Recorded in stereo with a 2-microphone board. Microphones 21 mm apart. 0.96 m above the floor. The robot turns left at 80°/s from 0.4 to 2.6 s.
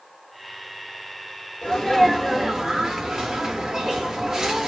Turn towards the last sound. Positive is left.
turn(degrees=-30)